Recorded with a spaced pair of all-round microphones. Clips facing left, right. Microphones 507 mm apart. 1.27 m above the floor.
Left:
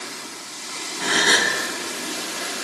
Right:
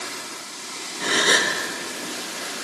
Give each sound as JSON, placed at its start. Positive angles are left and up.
{"t": 1.0, "sound": "a gasp", "side_deg": 10, "distance_m": 0.5}